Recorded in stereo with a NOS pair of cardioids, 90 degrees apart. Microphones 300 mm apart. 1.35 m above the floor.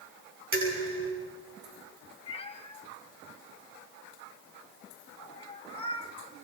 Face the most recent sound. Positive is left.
turn(degrees=20)